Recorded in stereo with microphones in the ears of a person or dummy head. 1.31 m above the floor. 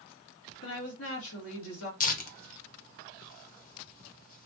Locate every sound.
0.6 s a woman speaking: 80° left, 2 m
2.0 s tearing paper: 45° left (ahead or behind), 0.9 m